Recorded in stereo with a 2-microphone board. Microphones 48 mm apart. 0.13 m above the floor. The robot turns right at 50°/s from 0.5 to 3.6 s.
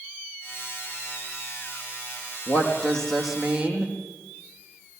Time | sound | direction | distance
2.5 | a woman speaking | 145° left | 4.5 m